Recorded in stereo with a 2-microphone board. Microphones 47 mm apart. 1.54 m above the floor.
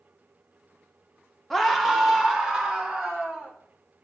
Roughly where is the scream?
Centre.